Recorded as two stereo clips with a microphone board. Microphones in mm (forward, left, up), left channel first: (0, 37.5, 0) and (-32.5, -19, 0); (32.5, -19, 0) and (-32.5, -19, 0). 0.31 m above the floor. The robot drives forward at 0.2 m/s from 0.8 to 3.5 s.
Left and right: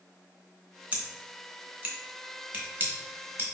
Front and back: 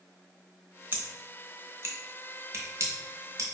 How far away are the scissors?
About 0.9 m.